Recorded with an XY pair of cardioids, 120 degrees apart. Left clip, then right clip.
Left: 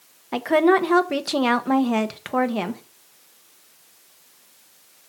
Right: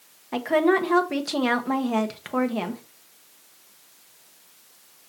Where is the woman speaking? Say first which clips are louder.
Left 3 dB; 20° left, 1.1 m.